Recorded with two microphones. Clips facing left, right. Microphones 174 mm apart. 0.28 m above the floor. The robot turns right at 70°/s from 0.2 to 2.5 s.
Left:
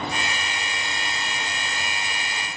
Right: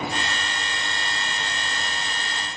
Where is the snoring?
No snoring in this recording.